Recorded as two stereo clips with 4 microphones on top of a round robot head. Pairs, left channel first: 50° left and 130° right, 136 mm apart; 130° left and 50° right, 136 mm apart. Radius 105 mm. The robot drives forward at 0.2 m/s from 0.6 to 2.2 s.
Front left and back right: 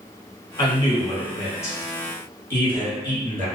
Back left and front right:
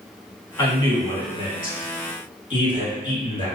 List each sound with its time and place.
0.6 s a man speaking: 95° left, 1.5 m; by 3.5 s 115° left, 1.5 m